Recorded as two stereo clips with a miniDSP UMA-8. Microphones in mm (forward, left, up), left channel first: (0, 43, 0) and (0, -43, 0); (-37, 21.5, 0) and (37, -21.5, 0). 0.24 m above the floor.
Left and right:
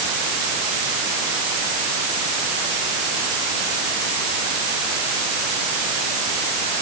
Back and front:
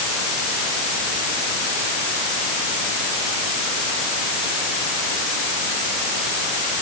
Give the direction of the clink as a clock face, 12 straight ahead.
I don't hear a clink.